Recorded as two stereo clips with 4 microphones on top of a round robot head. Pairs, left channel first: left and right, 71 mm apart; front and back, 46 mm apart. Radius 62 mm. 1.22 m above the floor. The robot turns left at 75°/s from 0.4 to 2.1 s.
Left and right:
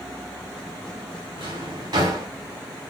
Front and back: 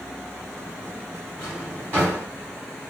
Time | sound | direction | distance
1.4 | a drawer | 80° right | 4.5 m